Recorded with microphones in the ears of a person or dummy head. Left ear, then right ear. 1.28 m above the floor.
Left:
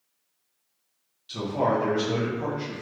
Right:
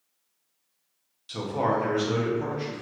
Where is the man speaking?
25° right (ahead or behind), 0.6 m; by 2.8 s 10° right (ahead or behind), 1.4 m.